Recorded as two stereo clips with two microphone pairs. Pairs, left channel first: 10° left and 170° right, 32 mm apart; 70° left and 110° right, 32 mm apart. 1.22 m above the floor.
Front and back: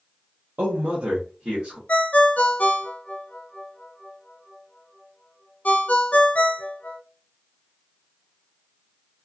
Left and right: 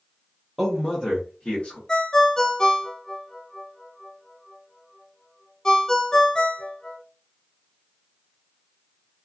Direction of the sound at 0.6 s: 170° left.